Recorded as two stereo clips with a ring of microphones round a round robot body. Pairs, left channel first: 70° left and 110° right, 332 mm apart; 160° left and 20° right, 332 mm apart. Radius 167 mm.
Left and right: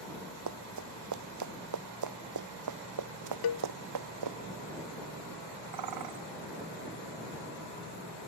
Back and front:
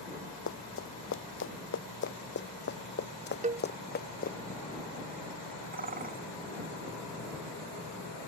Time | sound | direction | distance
0.5 | running footsteps | 150° right | ?
3.4 | a cowbell | 45° left | ?
5.7 | a bird | 85° right | ?